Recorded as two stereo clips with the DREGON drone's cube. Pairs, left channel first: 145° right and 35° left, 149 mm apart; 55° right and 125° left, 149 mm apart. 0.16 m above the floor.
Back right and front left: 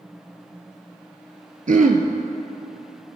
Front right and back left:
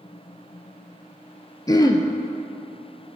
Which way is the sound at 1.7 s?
10° left.